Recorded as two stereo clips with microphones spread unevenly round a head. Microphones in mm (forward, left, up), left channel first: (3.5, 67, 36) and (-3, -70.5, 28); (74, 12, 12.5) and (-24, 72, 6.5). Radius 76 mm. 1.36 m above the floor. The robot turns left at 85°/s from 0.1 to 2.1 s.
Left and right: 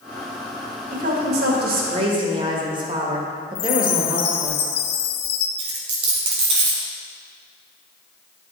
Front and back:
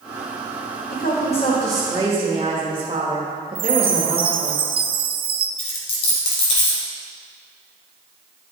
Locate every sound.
0.9 s a woman speaking: 50° right, 1.7 m; by 4.5 s 150° right, 1.7 m
3.5 s a chime: 105° left, 0.7 m
5.6 s a dropped coin: 45° right, 1.8 m